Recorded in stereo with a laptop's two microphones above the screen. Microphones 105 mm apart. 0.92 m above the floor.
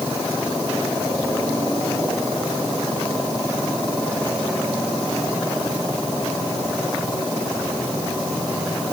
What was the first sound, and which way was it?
Only background noise.